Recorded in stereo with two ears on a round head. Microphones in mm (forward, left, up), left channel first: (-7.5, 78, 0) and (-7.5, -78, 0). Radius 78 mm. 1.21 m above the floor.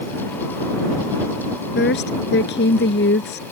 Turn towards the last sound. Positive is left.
turn(degrees=70)  # may be behind; listen again after turning